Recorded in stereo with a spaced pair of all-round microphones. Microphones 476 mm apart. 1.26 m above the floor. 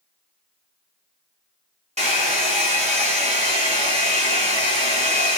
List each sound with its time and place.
2.0 s a hair dryer: 15° right (ahead or behind), 1.5 m